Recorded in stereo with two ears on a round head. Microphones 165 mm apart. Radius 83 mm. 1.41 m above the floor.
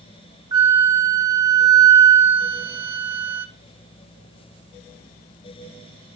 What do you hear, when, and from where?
0.5 s a flute: 20° right (ahead or behind), 0.8 m